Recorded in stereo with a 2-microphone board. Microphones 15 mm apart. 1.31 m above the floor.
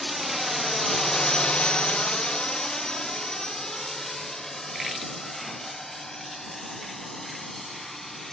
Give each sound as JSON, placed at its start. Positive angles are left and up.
{"t": 0.0, "sound": "a drone", "side_deg": -10}